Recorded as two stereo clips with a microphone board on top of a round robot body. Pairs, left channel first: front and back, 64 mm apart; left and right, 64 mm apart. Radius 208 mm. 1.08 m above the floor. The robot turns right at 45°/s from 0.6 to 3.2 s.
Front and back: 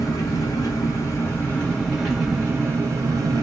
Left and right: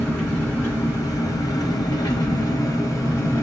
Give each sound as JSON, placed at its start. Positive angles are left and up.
{"t": 0.0, "sound": "an engine running", "azimuth_deg": 30, "distance_m": 0.9}